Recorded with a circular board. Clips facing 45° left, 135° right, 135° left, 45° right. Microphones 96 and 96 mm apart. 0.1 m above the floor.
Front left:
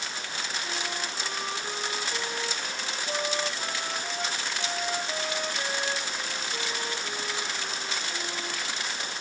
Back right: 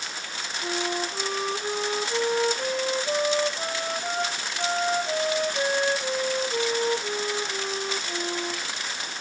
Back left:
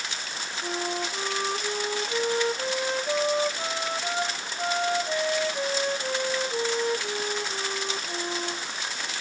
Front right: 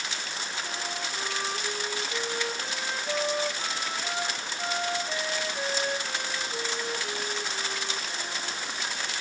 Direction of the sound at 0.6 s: 170° right.